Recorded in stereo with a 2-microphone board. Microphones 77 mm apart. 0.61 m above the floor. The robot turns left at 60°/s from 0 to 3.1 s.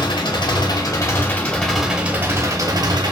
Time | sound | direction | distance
0.0 | an engine running | 105° left | 0.8 m